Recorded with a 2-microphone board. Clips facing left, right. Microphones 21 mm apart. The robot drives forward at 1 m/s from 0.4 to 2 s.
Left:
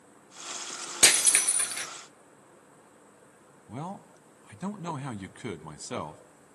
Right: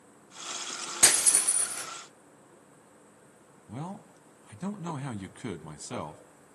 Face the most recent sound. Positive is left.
turn(degrees=15)  # may be behind; listen again after turning